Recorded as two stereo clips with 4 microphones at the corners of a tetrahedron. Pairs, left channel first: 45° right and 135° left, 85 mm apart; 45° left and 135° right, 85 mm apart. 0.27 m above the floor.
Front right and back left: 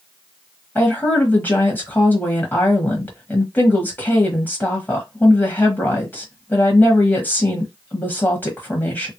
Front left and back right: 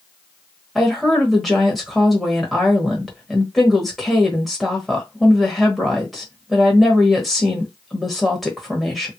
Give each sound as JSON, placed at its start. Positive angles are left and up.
{"t": 0.8, "sound": "a woman speaking", "azimuth_deg": -40, "distance_m": 1.1}